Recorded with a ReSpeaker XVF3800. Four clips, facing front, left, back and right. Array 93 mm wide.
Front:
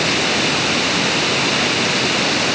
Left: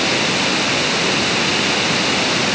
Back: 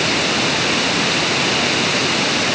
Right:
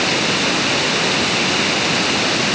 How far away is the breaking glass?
No breaking glass in this recording.